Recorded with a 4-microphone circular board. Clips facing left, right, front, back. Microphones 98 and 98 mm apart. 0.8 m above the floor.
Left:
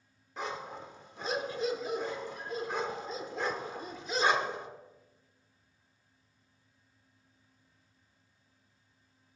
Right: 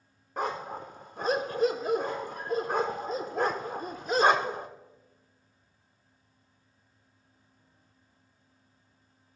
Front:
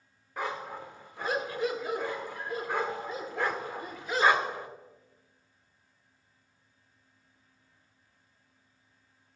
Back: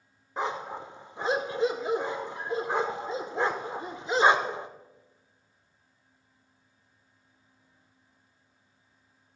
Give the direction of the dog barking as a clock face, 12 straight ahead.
4 o'clock.